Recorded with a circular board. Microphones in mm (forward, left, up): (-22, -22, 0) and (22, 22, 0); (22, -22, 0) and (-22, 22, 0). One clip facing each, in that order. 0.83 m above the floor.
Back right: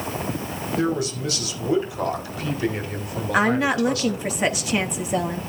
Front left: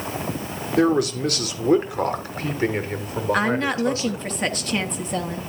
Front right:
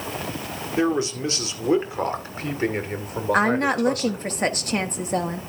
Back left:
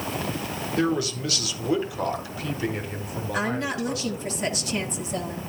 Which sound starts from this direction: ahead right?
A woman speaking, at 3.3 s.